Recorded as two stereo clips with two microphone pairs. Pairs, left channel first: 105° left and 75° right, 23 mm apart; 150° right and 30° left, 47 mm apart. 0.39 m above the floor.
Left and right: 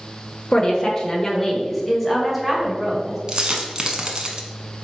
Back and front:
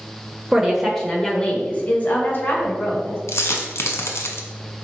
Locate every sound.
0.5 s a woman speaking: 110° left, 0.9 m; by 3.2 s 150° right, 1.5 m
3.3 s a dropped coin: 135° right, 0.7 m